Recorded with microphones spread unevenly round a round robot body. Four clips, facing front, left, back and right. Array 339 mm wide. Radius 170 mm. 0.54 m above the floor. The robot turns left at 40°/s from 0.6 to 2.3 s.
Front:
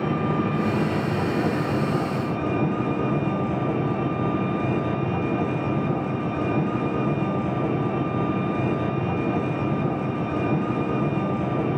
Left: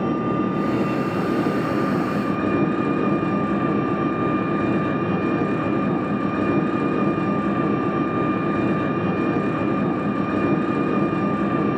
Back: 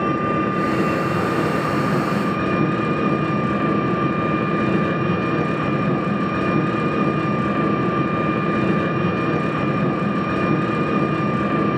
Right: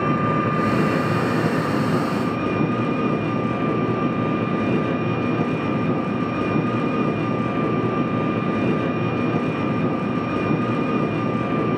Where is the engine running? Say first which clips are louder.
Right 1 dB, back 4 dB; 115° right, 4.5 m; by 11.8 s 175° left, 4.5 m.